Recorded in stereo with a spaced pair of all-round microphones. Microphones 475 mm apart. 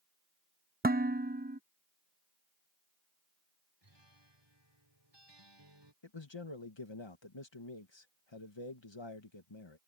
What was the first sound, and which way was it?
Dishes clattering, 20° right (ahead or behind).